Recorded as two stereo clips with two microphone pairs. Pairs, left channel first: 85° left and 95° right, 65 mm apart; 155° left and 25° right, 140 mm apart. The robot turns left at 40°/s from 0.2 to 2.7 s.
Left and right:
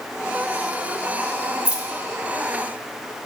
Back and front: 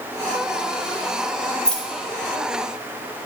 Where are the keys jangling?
140° right, 0.5 m; by 1.8 s 150° right, 0.5 m.